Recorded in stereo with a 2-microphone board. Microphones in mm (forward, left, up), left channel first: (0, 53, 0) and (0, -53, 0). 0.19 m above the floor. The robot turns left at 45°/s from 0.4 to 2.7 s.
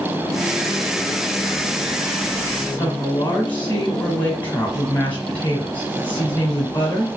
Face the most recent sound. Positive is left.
turn(degrees=15)  # may be behind; listen again after turning